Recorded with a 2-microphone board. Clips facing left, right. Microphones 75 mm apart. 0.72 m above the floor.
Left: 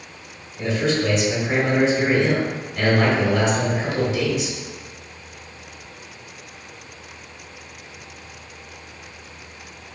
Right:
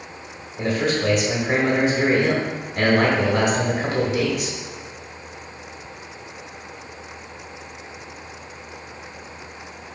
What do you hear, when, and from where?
0.6 s a man speaking: 45° right (ahead or behind), 1.1 m